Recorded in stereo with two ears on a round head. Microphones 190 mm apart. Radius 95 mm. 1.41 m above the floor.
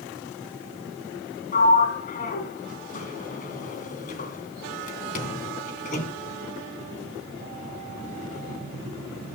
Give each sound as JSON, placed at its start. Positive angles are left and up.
{"t": 1.5, "sound": "a sliding door", "side_deg": 40, "distance_m": 2.5}